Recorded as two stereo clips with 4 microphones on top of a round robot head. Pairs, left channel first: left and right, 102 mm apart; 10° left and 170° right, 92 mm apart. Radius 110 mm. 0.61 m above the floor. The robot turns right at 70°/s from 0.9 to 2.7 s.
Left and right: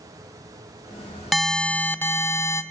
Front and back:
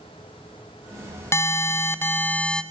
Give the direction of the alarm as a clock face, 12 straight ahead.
12 o'clock.